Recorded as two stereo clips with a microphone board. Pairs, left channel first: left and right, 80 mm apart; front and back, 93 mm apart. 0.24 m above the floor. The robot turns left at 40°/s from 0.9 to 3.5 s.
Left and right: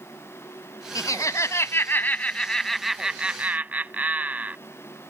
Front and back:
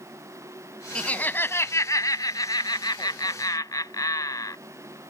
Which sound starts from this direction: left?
Laughter, at 0.9 s.